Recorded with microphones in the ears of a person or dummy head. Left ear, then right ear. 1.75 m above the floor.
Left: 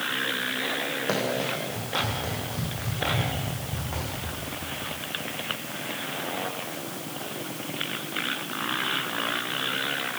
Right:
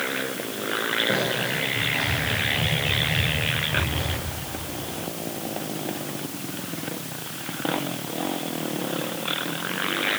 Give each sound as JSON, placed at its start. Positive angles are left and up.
{"t": 1.1, "sound": "running footsteps", "side_deg": 60, "distance_m": 5.0}